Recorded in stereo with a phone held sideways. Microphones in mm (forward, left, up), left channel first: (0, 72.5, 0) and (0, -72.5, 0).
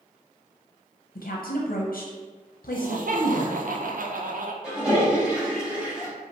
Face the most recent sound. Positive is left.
turn(degrees=-5)  # may be behind; listen again after turning